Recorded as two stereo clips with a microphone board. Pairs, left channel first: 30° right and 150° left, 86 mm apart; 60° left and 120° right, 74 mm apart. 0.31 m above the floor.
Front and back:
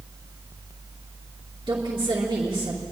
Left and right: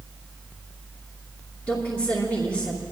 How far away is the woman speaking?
About 3 m.